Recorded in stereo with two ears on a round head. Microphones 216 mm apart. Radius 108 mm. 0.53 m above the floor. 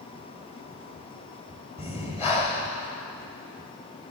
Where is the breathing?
25° left (ahead or behind), 1.6 m.